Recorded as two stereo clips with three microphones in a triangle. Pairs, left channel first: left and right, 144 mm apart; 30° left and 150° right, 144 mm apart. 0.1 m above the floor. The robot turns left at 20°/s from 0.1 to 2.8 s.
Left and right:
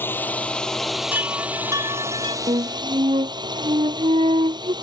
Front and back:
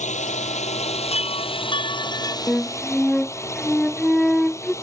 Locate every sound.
0.0 s a drone: 15° left; by 4.8 s 35° right
1.1 s a chime: 10° right; by 2.4 s 40° right
2.5 s a flute: 50° right; by 4.7 s 55° right